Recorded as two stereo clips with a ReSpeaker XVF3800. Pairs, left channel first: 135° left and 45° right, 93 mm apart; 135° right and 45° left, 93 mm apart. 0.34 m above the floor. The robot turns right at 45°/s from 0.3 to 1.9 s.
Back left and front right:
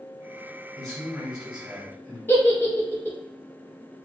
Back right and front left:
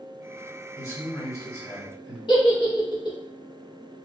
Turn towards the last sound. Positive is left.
turn(degrees=-160)